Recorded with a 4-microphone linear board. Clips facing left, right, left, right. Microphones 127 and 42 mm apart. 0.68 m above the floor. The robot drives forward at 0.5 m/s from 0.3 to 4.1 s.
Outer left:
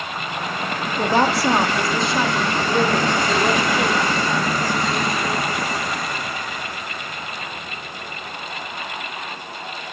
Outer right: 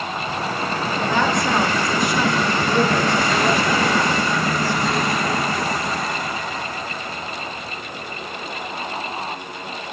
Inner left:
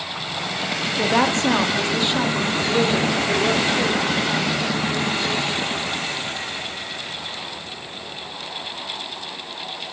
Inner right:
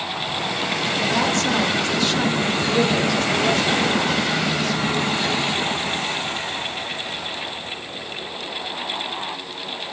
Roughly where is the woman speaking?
Left.